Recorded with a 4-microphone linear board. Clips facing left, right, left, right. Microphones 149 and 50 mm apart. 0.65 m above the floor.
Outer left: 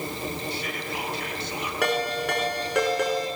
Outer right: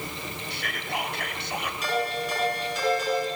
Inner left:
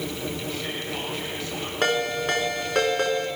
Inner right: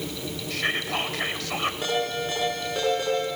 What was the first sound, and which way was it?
Whispering, 75° right (ahead or behind).